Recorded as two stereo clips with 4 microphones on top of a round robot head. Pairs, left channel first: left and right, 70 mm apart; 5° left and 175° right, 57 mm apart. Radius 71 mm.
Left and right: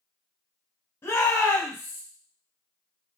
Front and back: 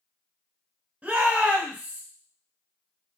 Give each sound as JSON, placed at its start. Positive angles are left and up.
{"t": 1.0, "sound": "a shout", "azimuth_deg": 130, "distance_m": 1.0}